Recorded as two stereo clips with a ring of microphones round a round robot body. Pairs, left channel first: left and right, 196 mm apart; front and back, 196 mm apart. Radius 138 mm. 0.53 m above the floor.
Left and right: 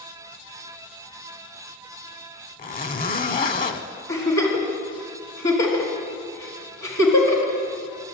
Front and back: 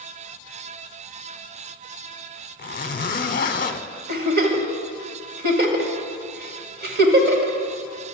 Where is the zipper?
45° left, 0.8 m.